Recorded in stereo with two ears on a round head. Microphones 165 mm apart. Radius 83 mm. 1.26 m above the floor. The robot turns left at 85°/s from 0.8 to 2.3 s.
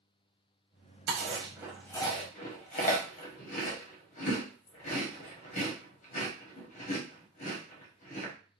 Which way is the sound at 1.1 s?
55° right (ahead or behind).